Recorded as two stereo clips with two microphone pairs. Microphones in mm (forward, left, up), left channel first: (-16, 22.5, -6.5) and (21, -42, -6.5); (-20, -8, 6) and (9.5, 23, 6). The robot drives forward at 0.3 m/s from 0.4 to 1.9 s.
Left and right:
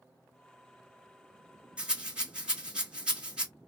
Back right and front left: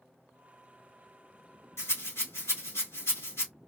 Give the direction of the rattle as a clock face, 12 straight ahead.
5 o'clock.